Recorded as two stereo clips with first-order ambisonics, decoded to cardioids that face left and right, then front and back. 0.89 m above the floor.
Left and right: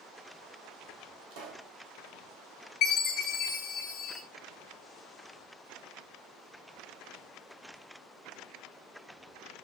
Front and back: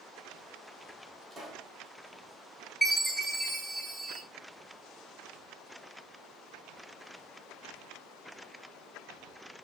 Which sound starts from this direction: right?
A pop, at 1.3 s.